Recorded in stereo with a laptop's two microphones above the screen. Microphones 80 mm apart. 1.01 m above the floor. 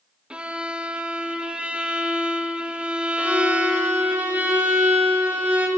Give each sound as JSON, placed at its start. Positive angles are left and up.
{"t": 0.3, "sound": "a violin", "side_deg": -15, "distance_m": 1.3}
{"t": 3.2, "sound": "a violin", "side_deg": -20, "distance_m": 5.5}